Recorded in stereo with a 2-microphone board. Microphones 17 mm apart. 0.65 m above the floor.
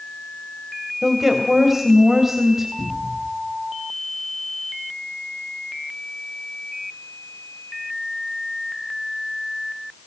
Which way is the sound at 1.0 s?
15° right (ahead or behind).